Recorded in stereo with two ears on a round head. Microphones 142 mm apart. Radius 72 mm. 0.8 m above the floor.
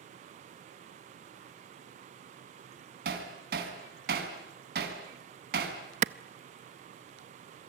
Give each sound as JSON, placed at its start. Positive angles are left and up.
{"t": 3.0, "sound": "hammering", "side_deg": -60, "distance_m": 4.0}
{"t": 6.0, "sound": "a clap", "side_deg": -45, "distance_m": 0.5}